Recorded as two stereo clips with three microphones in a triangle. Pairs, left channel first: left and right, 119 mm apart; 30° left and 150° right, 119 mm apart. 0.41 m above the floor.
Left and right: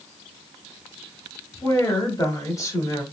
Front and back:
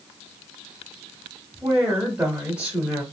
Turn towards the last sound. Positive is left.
turn(degrees=135)